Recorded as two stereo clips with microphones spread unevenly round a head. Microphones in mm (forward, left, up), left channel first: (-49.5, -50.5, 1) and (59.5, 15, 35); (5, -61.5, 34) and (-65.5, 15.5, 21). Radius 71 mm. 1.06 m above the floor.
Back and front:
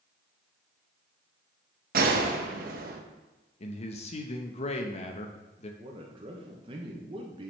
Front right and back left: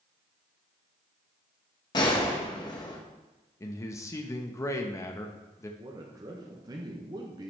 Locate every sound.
1.9 s a gunshot: 15° left, 1.1 m
3.6 s a man speaking: 110° right, 0.9 m
5.8 s a man speaking: 90° left, 1.2 m